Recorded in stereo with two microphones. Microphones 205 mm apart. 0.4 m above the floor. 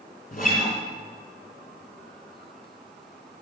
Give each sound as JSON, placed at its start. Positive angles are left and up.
{"t": 0.3, "sound": "a guitar", "side_deg": 45, "distance_m": 3.0}